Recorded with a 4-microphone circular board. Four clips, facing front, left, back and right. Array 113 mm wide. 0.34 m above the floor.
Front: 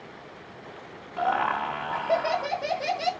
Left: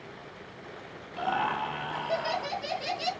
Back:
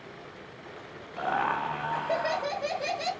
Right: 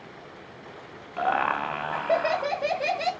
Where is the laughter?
75° right, 1.2 m.